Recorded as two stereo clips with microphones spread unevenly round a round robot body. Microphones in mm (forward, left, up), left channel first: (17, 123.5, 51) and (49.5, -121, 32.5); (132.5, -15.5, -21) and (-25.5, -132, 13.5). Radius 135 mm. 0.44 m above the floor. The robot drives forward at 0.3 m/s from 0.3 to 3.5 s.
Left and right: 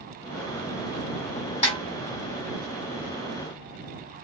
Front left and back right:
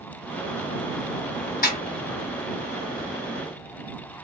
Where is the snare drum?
40° left, 1.4 m.